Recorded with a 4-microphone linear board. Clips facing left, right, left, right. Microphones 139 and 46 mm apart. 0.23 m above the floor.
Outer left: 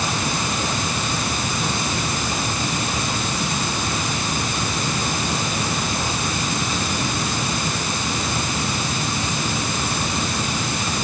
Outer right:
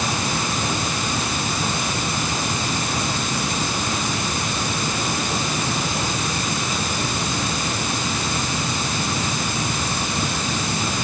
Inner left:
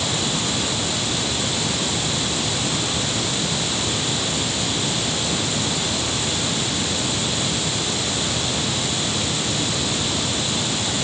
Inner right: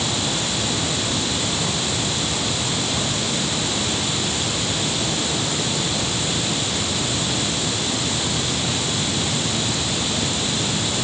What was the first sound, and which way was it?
Only background noise.